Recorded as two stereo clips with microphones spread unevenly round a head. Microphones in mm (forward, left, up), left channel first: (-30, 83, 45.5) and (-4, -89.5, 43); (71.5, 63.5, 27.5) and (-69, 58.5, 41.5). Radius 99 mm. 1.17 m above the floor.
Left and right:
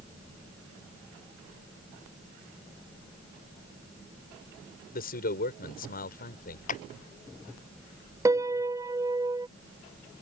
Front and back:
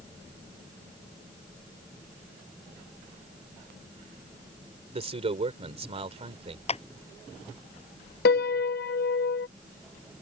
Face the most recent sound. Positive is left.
turn(degrees=-5)